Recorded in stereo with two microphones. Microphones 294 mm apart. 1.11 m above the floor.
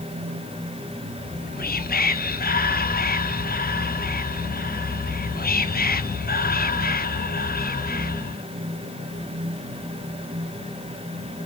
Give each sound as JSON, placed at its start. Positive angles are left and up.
{"t": 1.2, "sound": "whispering", "side_deg": 30, "distance_m": 0.6}